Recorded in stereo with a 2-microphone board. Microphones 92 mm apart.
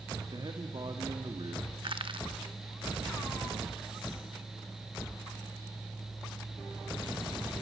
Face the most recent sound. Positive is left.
turn(degrees=-70)  # may be behind; listen again after turning